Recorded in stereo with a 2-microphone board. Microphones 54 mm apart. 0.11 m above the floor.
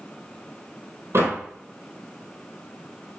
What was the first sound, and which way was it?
A door slam, 55° right (ahead or behind).